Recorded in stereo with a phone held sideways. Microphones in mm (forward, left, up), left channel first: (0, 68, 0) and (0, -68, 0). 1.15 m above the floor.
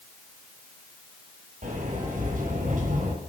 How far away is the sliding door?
About 7 m.